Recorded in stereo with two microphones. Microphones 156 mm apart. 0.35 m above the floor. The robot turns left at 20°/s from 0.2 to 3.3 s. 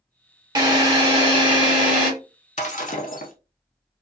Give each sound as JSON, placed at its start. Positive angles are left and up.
{"t": 0.6, "sound": "a drill", "azimuth_deg": -30, "distance_m": 1.1}
{"t": 2.6, "sound": "breaking glass", "side_deg": 50, "distance_m": 0.6}